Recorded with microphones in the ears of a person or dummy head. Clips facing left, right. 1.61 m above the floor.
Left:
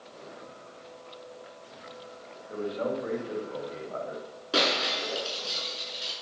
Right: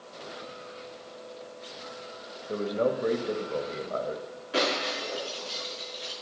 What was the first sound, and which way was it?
A man speaking, 50° right (ahead or behind).